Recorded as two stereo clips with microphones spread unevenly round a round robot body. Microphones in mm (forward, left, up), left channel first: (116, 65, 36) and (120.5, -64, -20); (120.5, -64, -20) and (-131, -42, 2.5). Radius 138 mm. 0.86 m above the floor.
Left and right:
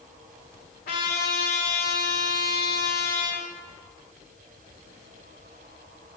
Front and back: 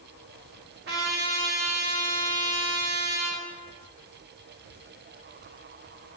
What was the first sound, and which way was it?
A trumpet, 120° left.